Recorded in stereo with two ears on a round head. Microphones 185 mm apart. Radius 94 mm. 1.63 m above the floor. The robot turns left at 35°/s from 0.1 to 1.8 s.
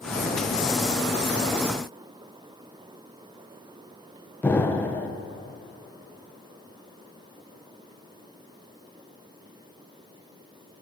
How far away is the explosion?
About 0.8 m.